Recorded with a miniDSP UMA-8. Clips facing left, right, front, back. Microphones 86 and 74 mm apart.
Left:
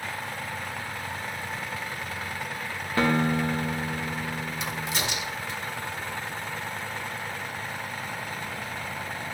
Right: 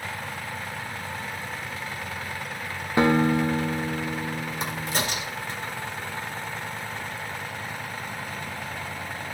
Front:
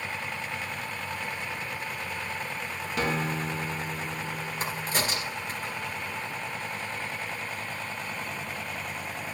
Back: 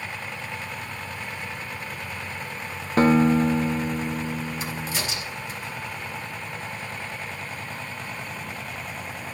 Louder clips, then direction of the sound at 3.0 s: Right 4 dB, back 12 dB; 150° right.